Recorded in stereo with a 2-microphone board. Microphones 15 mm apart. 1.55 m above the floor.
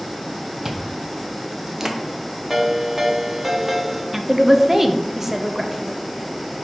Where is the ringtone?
20° right (ahead or behind), 1.2 m.